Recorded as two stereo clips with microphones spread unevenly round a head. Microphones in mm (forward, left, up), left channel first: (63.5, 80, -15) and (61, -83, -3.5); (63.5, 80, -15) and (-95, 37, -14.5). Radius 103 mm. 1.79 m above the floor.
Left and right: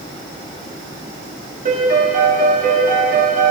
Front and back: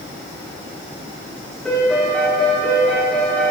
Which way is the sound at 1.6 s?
70° right.